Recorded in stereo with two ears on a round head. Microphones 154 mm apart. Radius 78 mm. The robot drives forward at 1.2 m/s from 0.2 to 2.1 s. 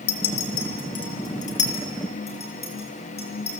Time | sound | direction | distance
0.1 | a clink | 70° left (ahead or behind) | 3 m